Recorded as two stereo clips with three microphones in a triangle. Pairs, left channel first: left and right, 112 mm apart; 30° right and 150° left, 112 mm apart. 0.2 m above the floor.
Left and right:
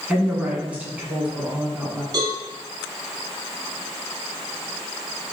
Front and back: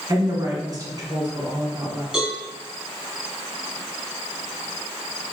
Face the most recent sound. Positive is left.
turn(degrees=-130)